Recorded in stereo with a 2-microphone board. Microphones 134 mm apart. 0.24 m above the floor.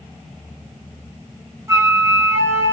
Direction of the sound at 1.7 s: 20° right (ahead or behind).